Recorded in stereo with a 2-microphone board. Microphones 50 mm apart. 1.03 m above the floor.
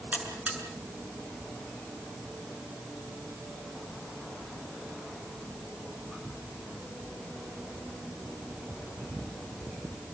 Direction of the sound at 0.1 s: 30° right (ahead or behind).